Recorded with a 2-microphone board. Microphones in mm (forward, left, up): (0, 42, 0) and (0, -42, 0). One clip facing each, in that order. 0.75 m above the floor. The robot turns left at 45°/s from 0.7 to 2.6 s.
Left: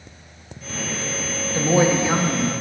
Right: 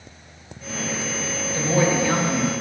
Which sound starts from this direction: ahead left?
A woman speaking, at 1.5 s.